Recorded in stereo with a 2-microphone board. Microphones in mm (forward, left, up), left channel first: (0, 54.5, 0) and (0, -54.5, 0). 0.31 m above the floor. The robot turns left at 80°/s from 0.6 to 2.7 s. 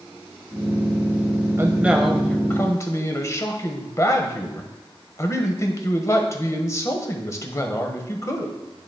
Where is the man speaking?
135° right, 1.1 m; by 8.6 s 130° left, 1.1 m.